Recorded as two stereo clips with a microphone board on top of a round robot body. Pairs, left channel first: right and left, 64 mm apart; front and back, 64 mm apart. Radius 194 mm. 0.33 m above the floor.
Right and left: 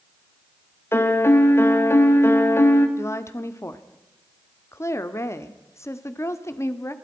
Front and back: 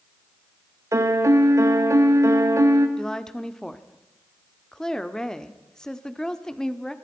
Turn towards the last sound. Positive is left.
turn(degrees=-80)